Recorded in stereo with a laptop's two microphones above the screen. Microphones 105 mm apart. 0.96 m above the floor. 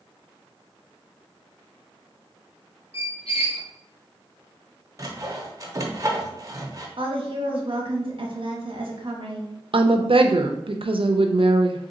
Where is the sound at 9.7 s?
60° right (ahead or behind), 0.5 m.